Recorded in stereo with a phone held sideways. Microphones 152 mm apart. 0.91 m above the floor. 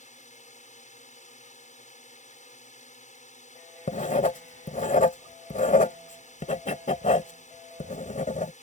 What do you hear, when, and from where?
0.0 s a drone: 55° left (ahead or behind)
3.9 s writing: 60° left (ahead or behind)